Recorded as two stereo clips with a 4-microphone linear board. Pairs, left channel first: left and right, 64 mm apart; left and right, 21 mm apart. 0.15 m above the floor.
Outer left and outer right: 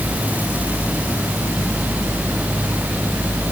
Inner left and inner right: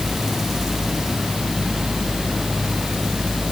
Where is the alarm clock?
I don't hear an alarm clock.